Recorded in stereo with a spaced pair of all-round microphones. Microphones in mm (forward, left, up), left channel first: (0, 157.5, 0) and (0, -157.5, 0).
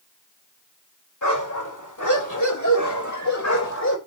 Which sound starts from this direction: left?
A dog barking, at 1.2 s.